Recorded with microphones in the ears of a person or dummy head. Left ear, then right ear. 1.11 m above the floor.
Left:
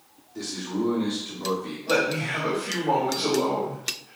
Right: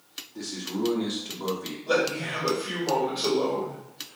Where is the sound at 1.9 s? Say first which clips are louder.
Left 1 dB; 45° right (ahead or behind), 2 m.